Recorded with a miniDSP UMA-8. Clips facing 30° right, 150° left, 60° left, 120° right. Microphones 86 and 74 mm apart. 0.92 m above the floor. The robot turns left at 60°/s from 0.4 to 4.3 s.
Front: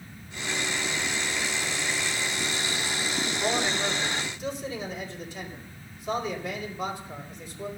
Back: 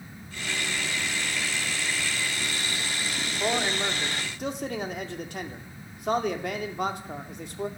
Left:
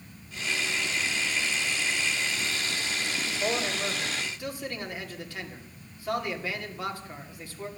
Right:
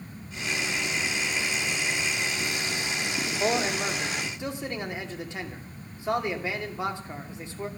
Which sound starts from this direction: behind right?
A man speaking, at 3.4 s.